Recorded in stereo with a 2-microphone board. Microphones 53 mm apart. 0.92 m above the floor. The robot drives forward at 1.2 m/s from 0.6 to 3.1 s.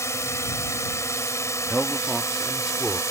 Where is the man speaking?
10° right (ahead or behind); by 3.0 s 5° right (ahead or behind).